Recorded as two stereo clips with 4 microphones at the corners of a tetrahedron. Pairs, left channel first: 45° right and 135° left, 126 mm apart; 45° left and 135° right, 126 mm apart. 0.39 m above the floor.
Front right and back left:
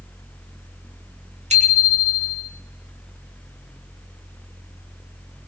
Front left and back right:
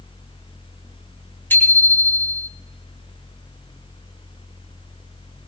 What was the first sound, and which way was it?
A bicycle bell, 120° left.